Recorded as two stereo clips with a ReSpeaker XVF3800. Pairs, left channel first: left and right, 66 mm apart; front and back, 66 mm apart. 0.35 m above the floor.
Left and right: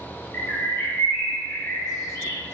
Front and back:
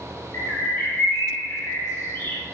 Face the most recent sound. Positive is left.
turn(degrees=50)